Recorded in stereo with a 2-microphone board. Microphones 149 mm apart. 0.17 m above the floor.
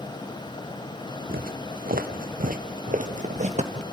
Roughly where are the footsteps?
Right.